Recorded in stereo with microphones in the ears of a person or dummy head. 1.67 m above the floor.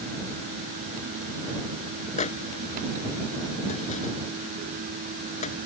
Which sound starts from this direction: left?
A microwave, at 2.2 s.